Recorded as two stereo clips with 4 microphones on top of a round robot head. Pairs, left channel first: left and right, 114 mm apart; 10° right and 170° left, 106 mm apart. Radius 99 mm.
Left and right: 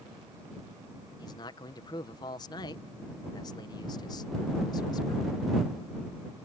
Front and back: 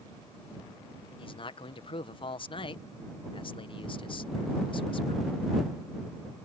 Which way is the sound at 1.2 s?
30° left.